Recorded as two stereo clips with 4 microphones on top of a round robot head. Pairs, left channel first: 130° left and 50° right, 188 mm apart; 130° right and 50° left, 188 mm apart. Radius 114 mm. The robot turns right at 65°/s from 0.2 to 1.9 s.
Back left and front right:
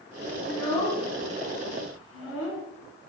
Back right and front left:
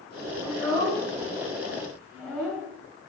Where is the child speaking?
45° left, 2 m; by 2.6 s 140° left, 2 m.